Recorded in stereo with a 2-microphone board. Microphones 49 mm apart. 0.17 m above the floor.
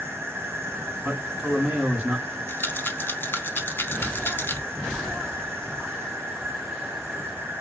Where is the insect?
55° right (ahead or behind), 0.8 m.